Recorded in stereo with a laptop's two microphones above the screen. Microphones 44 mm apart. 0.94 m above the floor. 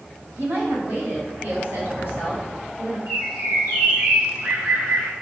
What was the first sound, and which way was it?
A woman speaking, 70° right (ahead or behind).